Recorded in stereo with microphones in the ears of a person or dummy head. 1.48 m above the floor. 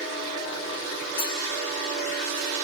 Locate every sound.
1.2 s cutlery clinking: 55° left (ahead or behind), 3.5 m